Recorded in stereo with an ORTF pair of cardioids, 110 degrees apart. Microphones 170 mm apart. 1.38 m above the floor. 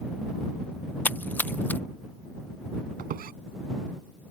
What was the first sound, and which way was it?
A splash, 10° left.